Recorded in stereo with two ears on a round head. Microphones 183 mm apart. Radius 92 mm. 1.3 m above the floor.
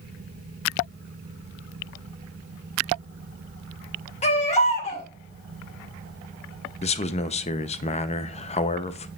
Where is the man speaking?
30° left (ahead or behind), 0.7 m.